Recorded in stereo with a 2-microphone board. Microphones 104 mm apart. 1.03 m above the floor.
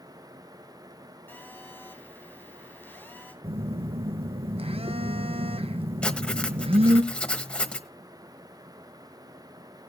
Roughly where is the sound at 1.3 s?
Centre.